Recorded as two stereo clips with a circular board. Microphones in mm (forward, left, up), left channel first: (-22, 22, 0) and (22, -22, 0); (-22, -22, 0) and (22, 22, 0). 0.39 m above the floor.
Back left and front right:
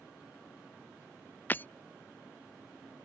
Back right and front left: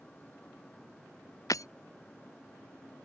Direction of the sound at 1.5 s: 165° right.